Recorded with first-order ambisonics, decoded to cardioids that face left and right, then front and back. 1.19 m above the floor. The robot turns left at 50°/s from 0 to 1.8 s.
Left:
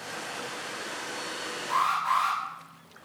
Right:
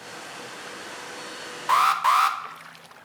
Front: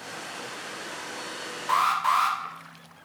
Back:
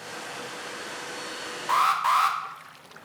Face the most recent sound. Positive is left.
turn(degrees=-100)